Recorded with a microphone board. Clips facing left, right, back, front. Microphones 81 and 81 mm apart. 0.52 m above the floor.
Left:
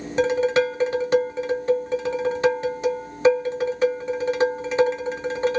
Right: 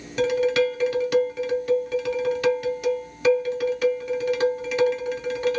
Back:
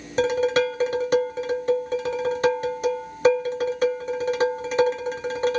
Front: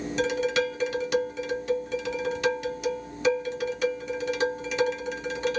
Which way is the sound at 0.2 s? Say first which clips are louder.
Left 1 dB, back 6 dB; 145° left.